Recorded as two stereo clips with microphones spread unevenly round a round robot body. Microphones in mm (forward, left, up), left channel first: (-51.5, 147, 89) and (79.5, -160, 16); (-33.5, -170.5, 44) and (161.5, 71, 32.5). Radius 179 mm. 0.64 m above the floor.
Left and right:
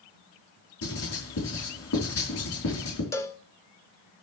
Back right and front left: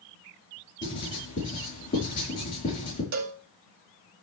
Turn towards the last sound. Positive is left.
turn(degrees=25)